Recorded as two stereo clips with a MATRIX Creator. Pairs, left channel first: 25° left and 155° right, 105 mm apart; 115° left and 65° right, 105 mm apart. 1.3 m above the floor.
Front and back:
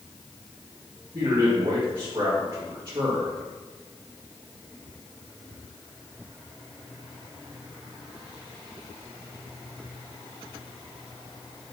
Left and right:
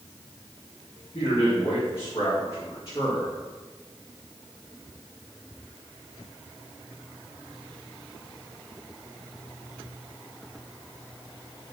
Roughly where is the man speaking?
Behind.